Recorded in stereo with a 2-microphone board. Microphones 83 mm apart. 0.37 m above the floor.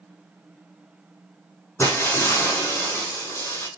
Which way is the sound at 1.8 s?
35° left (ahead or behind).